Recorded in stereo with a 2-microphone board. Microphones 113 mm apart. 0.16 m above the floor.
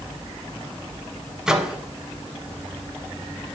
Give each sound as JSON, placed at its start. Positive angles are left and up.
{"t": 1.5, "sound": "a microwave", "side_deg": -5, "distance_m": 0.8}